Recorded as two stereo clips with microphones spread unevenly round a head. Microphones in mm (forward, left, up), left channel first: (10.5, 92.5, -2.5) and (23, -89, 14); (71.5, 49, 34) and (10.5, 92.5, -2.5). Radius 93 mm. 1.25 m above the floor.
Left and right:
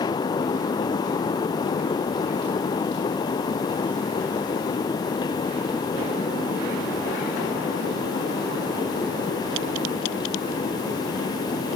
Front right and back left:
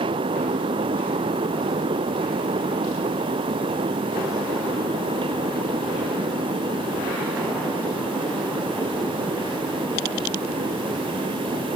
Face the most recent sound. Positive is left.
No sound to turn to.